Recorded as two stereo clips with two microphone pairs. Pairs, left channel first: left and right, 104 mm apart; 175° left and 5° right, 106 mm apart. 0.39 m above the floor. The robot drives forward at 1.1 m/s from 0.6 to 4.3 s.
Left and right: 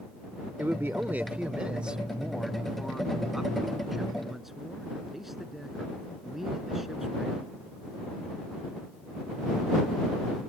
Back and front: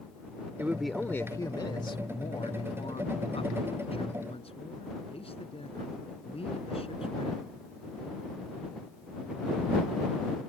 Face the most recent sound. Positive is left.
turn(degrees=-175)